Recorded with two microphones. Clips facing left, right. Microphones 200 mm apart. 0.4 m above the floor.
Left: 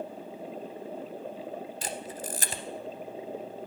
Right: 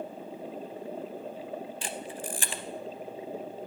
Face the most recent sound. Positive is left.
turn(degrees=40)  # may be behind; listen again after turning